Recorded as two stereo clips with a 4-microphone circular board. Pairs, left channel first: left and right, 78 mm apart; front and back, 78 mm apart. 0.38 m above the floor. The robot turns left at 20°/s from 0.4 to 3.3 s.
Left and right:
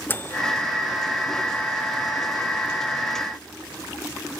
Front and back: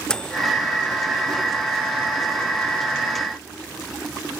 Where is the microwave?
70° left, 0.7 m.